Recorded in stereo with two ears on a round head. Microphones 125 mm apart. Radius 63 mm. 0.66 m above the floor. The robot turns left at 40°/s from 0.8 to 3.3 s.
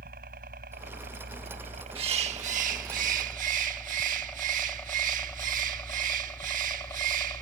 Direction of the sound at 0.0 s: 65° right (ahead or behind).